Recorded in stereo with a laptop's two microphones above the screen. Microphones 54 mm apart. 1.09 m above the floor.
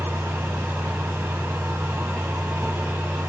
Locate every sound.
0.0 s a fan: 70° right (ahead or behind), 2 m